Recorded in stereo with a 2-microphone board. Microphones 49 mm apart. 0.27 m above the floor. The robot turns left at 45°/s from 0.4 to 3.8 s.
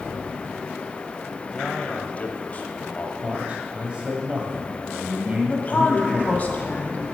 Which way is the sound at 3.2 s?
35° right (ahead or behind).